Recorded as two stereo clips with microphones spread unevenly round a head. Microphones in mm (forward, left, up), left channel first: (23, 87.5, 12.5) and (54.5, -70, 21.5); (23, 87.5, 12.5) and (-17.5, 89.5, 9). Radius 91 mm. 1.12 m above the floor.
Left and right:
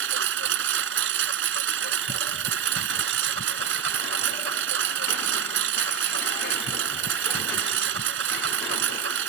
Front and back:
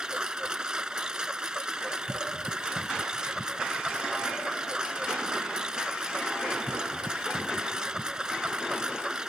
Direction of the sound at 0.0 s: 95° right.